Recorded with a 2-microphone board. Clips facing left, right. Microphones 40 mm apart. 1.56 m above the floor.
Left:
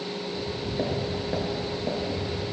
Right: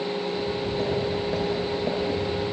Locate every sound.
0.3 s footsteps: 25° left (ahead or behind), 1.7 m; by 2.4 s 20° right (ahead or behind), 2 m